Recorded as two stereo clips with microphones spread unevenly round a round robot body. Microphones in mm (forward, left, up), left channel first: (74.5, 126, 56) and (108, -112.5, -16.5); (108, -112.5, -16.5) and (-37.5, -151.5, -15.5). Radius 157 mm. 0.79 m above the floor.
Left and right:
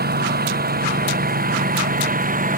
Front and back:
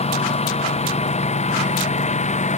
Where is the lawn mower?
30° right; by 2.6 s 25° right.